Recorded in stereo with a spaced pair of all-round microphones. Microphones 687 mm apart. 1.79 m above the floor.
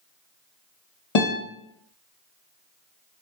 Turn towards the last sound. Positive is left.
turn(degrees=45)  # may be behind; listen again after turning